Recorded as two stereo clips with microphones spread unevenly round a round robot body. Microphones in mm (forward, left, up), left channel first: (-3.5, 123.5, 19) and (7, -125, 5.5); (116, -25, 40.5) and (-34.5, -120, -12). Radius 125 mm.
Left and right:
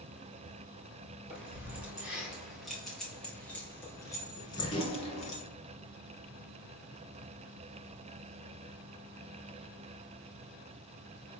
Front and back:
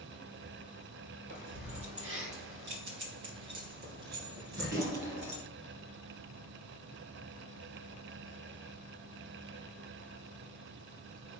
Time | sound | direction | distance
1.3 | keys jangling | 170° right | 5 m